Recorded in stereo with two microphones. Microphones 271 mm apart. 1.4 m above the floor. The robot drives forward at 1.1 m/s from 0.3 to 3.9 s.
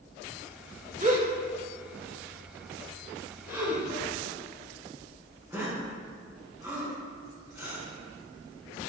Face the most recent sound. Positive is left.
turn(degrees=-10)  # may be behind; listen again after turning